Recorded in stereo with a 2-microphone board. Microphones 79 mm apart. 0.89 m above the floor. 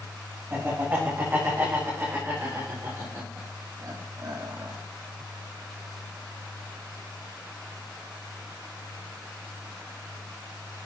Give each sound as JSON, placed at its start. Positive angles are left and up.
{"t": 0.5, "sound": "laughter", "side_deg": -30, "distance_m": 5.0}